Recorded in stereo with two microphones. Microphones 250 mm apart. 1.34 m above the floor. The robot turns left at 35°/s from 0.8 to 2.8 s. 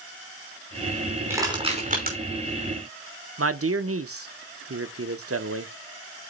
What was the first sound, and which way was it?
Crushing, 10° right (ahead or behind).